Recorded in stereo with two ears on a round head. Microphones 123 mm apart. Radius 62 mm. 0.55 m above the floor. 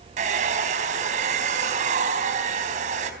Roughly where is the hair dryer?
Right.